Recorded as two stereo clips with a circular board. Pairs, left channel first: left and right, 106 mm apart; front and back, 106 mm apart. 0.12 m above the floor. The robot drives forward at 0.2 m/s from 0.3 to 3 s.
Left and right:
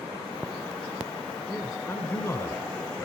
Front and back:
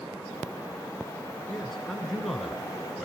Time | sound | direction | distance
1.5 | a man speaking | 80° left | 1.8 m